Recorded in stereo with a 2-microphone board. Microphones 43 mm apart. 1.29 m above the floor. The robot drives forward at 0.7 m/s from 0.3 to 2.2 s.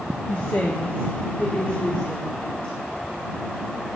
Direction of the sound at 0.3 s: 50° left (ahead or behind).